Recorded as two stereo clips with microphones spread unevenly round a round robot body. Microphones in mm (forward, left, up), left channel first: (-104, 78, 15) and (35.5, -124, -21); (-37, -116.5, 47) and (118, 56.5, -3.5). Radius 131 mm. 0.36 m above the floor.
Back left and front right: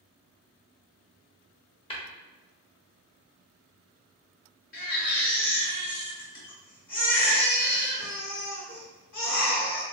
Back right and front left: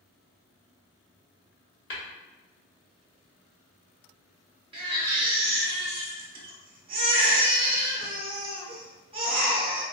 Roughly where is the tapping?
Behind.